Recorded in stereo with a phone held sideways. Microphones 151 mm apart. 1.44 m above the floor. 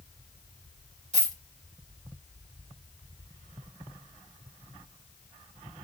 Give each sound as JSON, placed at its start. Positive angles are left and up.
{"t": 1.1, "sound": "a dropped coin", "side_deg": -50, "distance_m": 1.9}